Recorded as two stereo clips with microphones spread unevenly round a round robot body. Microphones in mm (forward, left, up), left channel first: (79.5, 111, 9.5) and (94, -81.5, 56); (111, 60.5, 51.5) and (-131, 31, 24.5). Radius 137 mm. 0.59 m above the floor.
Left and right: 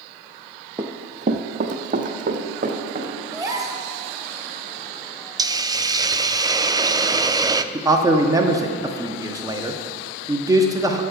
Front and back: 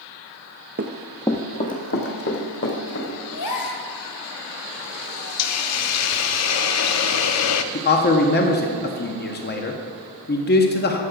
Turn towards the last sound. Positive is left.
turn(degrees=0)